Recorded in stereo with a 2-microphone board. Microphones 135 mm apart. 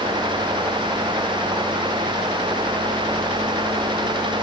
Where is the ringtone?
No ringtone in this recording.